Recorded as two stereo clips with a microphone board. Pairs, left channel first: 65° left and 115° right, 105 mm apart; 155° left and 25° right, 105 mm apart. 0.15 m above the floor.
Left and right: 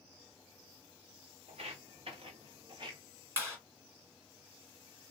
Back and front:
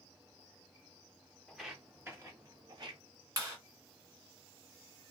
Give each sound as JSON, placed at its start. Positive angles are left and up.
{"t": 1.5, "sound": "footsteps", "azimuth_deg": -110, "distance_m": 1.0}
{"t": 3.4, "sound": "a clap", "azimuth_deg": -60, "distance_m": 1.6}